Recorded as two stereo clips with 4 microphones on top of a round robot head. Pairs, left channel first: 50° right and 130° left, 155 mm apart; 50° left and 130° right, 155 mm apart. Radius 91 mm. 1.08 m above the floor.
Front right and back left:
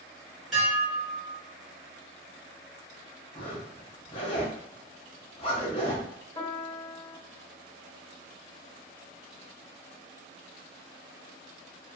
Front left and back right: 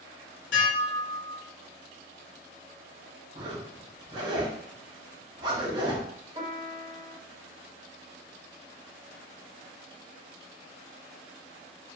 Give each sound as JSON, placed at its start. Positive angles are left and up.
{"t": 0.5, "sound": "dishes clattering", "azimuth_deg": 45, "distance_m": 1.2}
{"t": 3.4, "sound": "a zipper", "azimuth_deg": -85, "distance_m": 0.5}
{"t": 6.3, "sound": "a piano", "azimuth_deg": -95, "distance_m": 0.8}